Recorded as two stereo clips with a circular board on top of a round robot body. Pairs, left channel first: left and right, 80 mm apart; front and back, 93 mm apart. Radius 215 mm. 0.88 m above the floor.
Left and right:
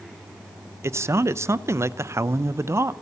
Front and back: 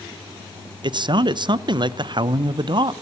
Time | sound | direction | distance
0.8 | a man speaking | 145° right | 0.8 m